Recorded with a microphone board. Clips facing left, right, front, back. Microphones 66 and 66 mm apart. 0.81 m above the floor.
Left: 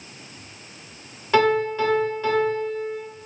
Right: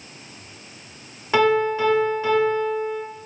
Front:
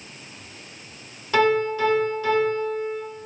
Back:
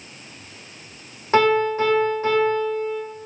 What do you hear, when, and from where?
1.3 s a piano: 165° right, 1.0 m